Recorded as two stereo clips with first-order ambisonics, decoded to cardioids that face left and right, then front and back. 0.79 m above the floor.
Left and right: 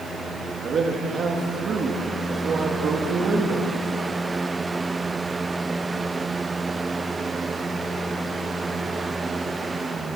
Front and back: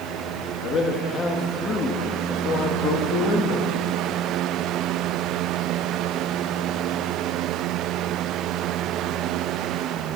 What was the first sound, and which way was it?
A man speaking, 45° right.